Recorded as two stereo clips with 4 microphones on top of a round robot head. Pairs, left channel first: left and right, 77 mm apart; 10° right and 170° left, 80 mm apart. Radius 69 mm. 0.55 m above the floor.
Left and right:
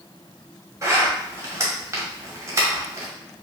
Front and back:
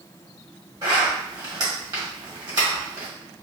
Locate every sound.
0.8 s a zipper: 135° right, 1.4 m